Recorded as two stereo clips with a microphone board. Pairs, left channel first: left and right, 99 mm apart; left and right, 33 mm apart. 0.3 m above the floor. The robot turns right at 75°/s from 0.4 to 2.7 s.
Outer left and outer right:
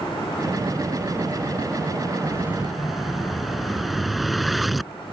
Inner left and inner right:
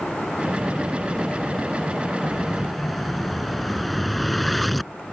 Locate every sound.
2.2 s an explosion: 35° right (ahead or behind); by 5.1 s centre (ahead or behind)